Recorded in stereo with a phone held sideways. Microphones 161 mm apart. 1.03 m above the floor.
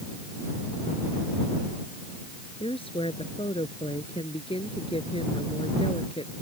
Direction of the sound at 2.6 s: 35° left (ahead or behind).